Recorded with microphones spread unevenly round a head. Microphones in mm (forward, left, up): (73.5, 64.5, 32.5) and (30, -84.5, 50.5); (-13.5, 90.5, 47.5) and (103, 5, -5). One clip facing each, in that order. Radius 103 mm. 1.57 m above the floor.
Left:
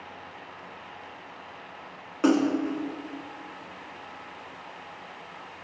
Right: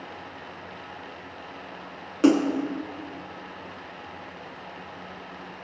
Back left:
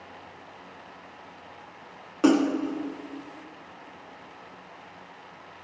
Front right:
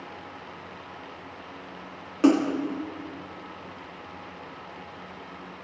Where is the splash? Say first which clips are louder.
Right 3 dB, even; 145° right, 1.2 m.